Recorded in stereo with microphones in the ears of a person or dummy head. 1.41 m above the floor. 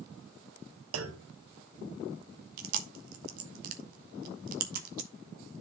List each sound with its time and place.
0.9 s a clunk: 75° right (ahead or behind), 0.8 m
2.6 s chewing: 55° right (ahead or behind), 1.2 m